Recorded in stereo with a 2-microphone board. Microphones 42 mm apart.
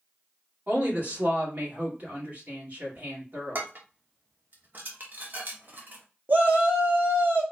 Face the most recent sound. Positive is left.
turn(degrees=-45)  # may be behind; listen again after turning